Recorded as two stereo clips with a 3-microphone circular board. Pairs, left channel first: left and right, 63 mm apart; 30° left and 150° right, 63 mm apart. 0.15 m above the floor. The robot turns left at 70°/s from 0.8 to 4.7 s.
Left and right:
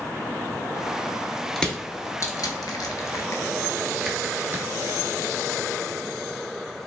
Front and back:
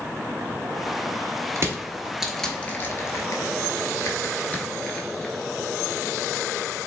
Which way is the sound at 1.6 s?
175° left.